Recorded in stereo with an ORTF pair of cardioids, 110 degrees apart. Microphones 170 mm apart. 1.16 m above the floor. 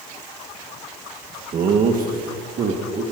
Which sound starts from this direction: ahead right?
Laughter, at 1.5 s.